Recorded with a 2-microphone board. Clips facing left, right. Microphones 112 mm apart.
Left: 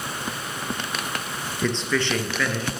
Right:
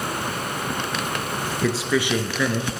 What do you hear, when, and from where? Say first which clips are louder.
1.6 s a man speaking: right 2 dB; 5° right (ahead or behind), 1.4 m; by 2.7 s 20° right (ahead or behind), 1.7 m